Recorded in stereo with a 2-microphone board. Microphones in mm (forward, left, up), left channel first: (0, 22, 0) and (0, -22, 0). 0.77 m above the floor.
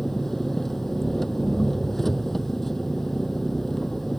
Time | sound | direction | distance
0.0 | an engine running | 5° left (ahead or behind) | ?